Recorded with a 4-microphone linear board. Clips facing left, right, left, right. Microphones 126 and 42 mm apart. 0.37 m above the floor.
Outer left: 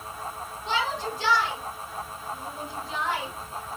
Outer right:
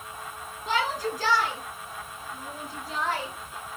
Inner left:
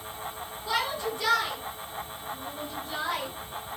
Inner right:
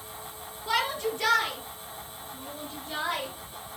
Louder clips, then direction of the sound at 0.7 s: Outer right 1 dB, inner right 2 dB; 45° right (ahead or behind).